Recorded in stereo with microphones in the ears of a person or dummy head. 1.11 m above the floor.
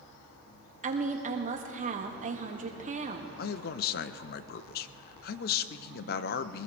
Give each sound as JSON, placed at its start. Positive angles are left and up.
{"t": 0.8, "sound": "a woman speaking", "side_deg": -35, "distance_m": 1.7}
{"t": 3.4, "sound": "a man speaking", "side_deg": 45, "distance_m": 0.7}